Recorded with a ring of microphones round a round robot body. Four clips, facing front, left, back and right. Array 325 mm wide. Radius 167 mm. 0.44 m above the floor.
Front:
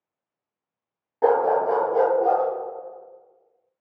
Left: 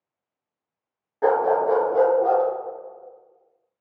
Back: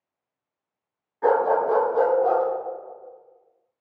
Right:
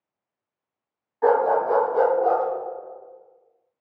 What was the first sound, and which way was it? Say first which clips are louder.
A dog barking: even, front 1 dB; 35° left.